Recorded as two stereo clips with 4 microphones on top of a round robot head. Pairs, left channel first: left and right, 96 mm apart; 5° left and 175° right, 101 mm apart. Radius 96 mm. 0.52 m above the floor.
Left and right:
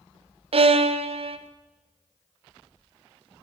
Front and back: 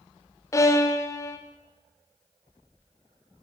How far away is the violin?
About 1.4 m.